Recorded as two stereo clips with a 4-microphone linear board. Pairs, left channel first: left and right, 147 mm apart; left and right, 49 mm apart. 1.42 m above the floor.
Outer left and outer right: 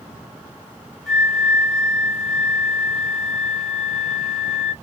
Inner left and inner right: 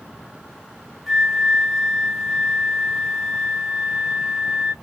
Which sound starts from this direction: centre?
A flute, at 1.1 s.